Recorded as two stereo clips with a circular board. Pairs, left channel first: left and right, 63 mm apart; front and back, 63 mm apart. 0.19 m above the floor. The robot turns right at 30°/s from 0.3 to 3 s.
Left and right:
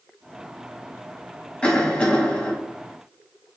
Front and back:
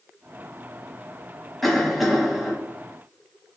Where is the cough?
80° left, 1.0 m; by 2.5 s 110° left, 1.0 m.